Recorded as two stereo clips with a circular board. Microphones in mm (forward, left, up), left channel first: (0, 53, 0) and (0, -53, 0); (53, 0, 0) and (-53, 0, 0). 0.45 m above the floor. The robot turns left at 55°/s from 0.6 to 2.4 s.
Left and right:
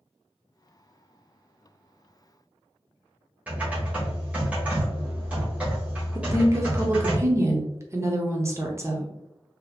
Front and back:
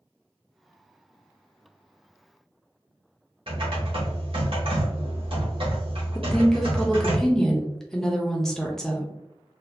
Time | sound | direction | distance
3.5 | typing on a keyboard | 165° right | 1.5 m
6.2 | a woman speaking | 80° right | 0.7 m